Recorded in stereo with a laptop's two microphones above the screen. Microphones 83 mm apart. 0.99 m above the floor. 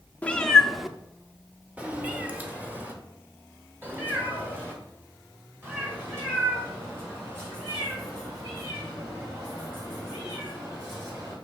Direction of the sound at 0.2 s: 15° left (ahead or behind).